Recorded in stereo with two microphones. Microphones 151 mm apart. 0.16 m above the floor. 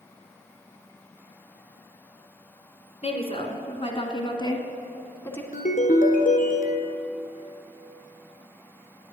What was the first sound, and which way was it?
A woman speaking, 40° left (ahead or behind).